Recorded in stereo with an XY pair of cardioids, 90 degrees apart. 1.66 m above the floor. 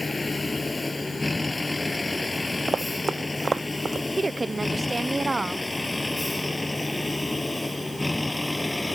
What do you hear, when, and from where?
0.0 s a vehicle: 20° left; by 9.0 s 10° left
2.7 s running footsteps: 40° right
4.2 s a woman speaking: 25° right